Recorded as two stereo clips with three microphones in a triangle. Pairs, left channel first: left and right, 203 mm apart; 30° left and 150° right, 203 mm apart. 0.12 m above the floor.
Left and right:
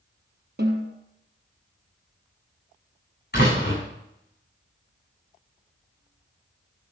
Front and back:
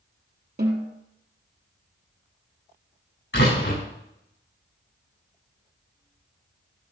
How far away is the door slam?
About 8 m.